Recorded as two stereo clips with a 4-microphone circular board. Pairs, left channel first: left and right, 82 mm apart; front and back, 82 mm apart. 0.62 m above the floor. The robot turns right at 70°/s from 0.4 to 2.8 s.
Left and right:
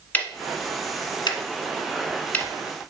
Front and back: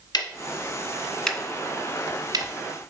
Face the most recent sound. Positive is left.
turn(degrees=-170)